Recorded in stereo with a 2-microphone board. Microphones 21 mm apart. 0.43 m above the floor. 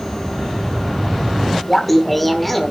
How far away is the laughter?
About 1.4 m.